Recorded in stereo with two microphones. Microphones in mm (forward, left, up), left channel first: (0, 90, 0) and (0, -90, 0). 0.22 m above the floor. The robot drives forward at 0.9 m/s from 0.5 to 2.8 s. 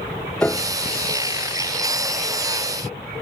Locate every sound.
0.4 s a piano: 10° left (ahead or behind)